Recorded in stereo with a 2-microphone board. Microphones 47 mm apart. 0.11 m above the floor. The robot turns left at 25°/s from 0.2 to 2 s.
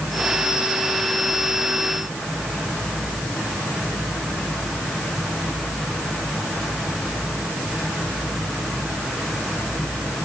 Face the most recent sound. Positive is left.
No sound to turn to.